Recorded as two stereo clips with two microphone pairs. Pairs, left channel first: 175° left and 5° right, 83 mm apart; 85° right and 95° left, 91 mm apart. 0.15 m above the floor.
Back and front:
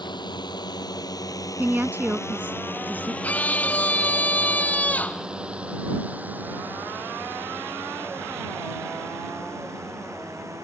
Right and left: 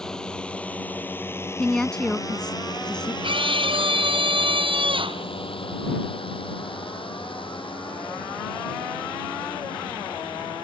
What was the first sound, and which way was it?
A drone, 165° right.